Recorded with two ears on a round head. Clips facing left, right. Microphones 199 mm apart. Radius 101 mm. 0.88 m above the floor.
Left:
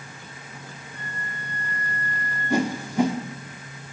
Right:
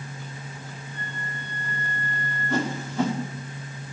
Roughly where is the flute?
Right.